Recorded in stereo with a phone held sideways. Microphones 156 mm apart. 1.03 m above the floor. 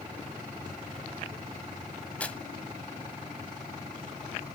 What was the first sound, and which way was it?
Tearing paper, 10° left (ahead or behind).